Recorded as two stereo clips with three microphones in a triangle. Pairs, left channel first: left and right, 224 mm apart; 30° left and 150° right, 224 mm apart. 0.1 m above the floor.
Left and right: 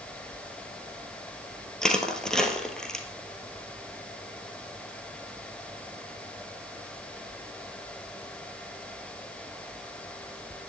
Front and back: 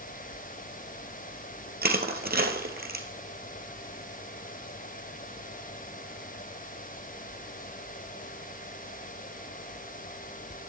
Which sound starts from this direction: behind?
Crushing, at 1.8 s.